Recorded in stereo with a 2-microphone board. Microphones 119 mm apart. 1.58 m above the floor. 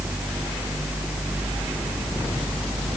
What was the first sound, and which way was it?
Only background noise.